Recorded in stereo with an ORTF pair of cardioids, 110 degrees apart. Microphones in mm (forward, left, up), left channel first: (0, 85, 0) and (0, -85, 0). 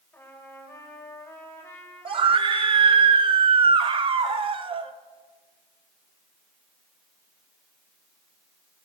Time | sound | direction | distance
0.1 | a trumpet | 10° left | 2.5 m
2.0 | a scream | 30° right | 1.0 m